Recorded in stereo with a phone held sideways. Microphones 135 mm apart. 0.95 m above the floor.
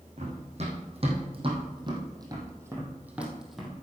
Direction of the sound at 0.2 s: 55° right (ahead or behind).